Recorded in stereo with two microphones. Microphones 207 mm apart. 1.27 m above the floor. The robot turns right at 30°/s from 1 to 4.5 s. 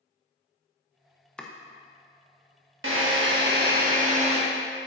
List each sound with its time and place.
1.4 s chopping: 5° left (ahead or behind), 0.8 m; by 1.5 s centre (ahead or behind), 0.8 m
2.8 s a drill: 75° right, 1.3 m; by 4.4 s 30° right, 1.3 m